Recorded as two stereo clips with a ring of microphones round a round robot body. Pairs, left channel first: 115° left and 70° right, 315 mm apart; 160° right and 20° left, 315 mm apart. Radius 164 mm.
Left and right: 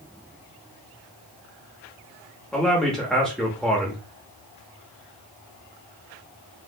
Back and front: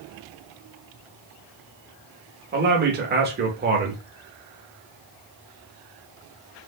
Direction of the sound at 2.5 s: 25° left.